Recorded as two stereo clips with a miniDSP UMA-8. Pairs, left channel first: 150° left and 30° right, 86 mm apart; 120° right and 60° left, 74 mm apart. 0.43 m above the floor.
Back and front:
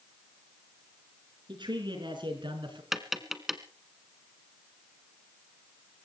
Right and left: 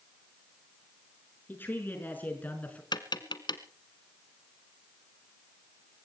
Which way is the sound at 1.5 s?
55° right.